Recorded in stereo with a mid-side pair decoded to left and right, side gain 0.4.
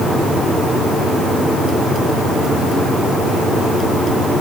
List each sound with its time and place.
Only background noise.